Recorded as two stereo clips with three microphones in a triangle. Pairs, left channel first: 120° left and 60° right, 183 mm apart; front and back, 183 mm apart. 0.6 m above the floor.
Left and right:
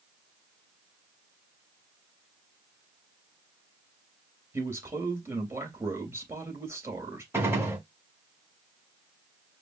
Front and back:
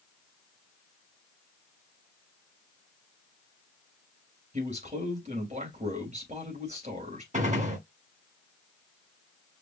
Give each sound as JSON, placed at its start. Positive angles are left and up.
{"t": 4.5, "sound": "a man speaking", "azimuth_deg": -135, "distance_m": 3.5}
{"t": 7.3, "sound": "a gunshot", "azimuth_deg": -135, "distance_m": 2.0}